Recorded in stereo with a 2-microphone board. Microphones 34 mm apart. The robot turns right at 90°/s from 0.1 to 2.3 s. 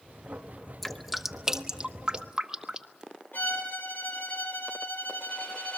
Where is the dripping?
5° left (ahead or behind), 1.1 m; by 3.0 s 20° right (ahead or behind), 1.1 m.